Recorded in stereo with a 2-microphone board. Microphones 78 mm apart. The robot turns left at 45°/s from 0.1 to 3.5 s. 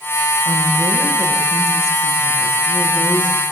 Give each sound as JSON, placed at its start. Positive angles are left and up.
{"t": 0.5, "sound": "a woman speaking", "azimuth_deg": -125, "distance_m": 8.5}